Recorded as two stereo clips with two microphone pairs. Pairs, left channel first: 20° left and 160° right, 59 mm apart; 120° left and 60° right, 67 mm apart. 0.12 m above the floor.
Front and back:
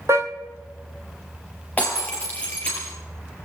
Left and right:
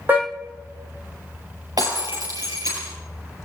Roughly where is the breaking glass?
Ahead right.